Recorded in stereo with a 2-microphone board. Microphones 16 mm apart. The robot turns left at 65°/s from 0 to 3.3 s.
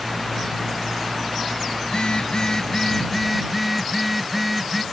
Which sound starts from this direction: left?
A phone buzzing, at 1.8 s.